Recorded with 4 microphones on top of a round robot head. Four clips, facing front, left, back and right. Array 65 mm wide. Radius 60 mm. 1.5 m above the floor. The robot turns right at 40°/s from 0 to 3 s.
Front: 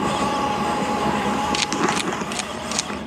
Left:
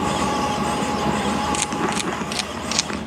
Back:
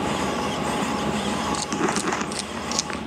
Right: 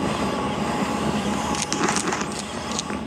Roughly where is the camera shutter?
Ahead.